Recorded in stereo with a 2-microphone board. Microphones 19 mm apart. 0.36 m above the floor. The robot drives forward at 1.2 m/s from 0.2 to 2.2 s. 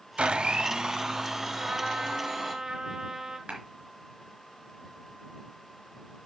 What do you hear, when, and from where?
0.2 s a blender: 75° right (ahead or behind), 0.6 m; by 2.5 s 15° right (ahead or behind), 2.5 m
1.5 s a trumpet: 55° right (ahead or behind), 1.9 m; by 3.4 s 40° right (ahead or behind), 2.5 m
3.5 s a clap: 75° right (ahead or behind), 3.5 m